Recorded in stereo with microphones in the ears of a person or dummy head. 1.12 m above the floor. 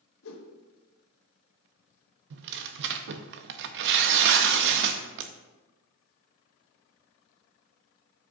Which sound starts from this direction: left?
A whoosh, at 0.2 s.